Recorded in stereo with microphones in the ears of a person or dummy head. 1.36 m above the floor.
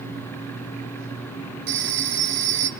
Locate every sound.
1.7 s a phone ringing: 65° right (ahead or behind), 1.6 m